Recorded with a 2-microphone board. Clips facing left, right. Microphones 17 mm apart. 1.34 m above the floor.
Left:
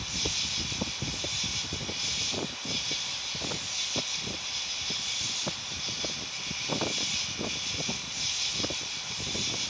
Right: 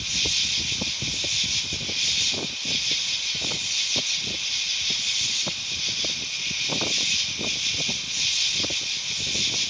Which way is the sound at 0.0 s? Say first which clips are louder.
Right 7 dB; 80° right.